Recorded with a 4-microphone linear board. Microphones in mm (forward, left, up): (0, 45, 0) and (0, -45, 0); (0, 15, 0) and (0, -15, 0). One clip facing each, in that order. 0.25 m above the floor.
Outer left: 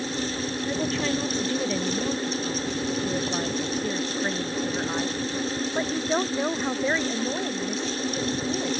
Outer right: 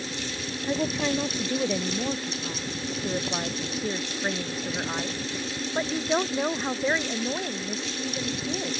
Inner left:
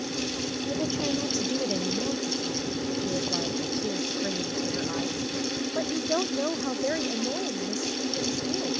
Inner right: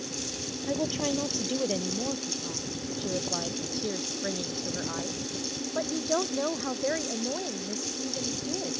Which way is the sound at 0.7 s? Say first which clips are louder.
Outer right 2 dB, inner right 1 dB; 15° right (ahead or behind).